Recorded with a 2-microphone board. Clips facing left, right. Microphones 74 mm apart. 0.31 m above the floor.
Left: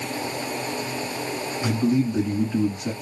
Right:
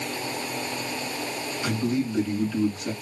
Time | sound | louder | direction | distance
1.6 | a man speaking | left 4 dB | 20° left (ahead or behind) | 3.5 m